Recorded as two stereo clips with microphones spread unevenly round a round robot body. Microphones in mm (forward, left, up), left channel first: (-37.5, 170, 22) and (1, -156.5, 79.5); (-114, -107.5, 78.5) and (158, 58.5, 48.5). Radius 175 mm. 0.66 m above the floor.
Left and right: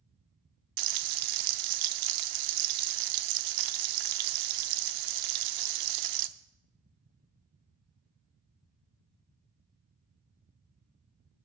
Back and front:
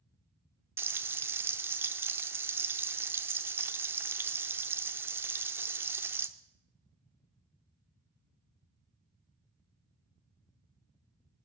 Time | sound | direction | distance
0.8 | frying | 50° right | 0.7 m